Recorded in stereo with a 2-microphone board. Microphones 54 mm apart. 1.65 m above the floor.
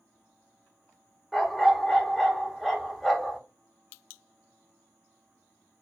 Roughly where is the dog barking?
Centre.